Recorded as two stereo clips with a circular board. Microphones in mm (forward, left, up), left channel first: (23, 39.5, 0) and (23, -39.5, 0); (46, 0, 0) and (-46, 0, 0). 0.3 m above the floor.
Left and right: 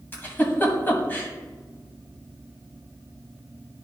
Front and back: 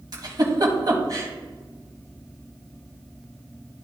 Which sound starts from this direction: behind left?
A giggle, at 0.1 s.